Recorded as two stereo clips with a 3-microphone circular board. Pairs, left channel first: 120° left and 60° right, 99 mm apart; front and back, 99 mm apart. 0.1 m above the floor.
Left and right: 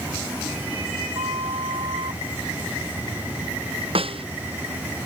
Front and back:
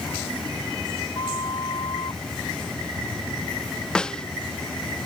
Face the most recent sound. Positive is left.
turn(degrees=-80)